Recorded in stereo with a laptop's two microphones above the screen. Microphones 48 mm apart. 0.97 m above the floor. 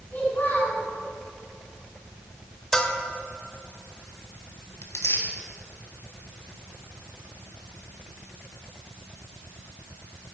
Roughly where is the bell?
Centre.